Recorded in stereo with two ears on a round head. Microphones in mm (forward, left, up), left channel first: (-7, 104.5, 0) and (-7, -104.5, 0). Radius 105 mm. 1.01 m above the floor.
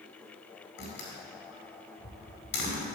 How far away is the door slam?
About 5 m.